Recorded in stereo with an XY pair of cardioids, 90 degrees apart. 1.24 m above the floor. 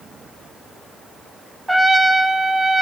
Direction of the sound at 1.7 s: 20° right.